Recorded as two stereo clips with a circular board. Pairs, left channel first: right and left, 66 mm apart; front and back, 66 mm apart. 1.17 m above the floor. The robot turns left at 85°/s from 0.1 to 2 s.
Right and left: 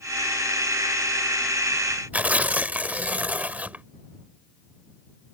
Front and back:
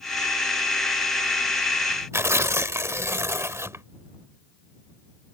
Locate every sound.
2.1 s tearing paper: 150° left